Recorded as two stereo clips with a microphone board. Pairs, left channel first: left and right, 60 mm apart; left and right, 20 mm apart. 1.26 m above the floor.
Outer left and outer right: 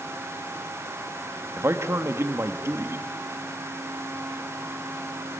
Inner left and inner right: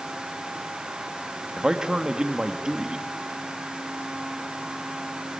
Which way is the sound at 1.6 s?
50° right (ahead or behind).